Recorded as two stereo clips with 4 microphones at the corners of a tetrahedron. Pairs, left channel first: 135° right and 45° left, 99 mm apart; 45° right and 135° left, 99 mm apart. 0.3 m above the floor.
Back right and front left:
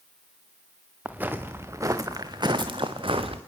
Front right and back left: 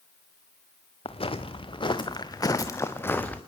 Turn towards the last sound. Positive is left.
turn(degrees=30)